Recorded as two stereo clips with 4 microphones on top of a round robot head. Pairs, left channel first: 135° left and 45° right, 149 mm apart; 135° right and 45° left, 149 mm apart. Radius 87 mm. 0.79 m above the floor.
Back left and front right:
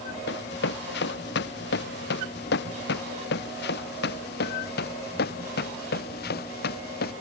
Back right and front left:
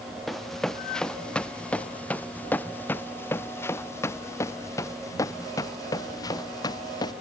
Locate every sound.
0.3 s running footsteps: 135° left; by 7.1 s 160° left